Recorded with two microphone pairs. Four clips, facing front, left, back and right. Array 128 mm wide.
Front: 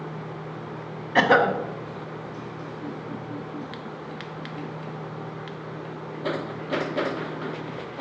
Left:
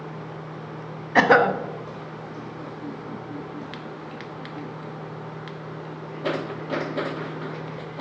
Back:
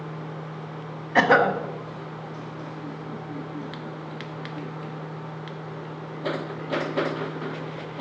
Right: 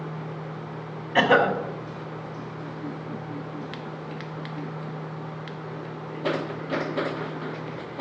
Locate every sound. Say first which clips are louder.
1.1 s a cough: left 3 dB, even; 110° left, 0.7 m